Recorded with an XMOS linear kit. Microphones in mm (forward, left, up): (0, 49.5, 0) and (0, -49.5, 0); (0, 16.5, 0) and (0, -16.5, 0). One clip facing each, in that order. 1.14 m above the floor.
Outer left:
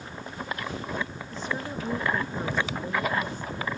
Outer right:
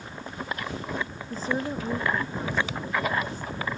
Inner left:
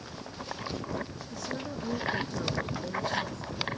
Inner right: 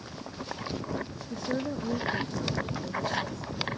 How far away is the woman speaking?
About 0.7 m.